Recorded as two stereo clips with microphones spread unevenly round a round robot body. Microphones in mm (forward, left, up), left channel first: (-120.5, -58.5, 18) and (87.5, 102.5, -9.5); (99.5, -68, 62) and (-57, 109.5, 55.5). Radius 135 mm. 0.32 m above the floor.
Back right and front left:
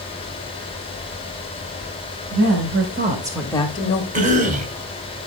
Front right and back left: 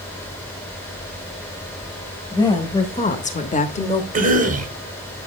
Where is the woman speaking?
25° left, 1.8 m; by 4.0 s 110° right, 1.2 m.